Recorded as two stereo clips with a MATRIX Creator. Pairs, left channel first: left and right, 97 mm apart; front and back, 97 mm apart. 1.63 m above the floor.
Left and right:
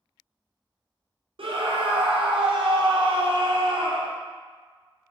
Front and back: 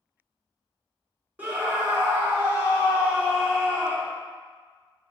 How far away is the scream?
About 0.5 m.